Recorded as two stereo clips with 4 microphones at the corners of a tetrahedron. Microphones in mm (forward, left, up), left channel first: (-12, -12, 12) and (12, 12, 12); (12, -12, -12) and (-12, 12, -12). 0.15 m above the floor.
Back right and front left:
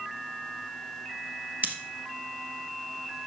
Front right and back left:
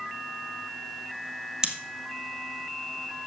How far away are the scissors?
About 1.7 m.